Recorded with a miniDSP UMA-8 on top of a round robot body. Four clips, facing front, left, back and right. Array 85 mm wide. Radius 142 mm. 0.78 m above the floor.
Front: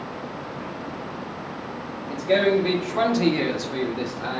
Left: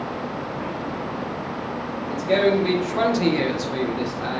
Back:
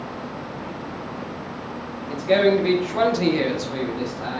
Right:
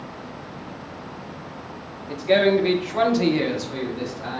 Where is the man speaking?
115° right, 1.3 m; by 4.4 s 65° left, 1.1 m.